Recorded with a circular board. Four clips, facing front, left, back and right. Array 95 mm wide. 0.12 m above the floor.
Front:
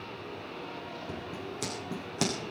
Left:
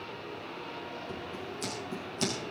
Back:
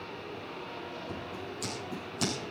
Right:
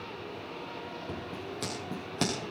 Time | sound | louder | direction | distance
1.1 | scissors | right 1 dB, front 1 dB | 50° right | 6.5 m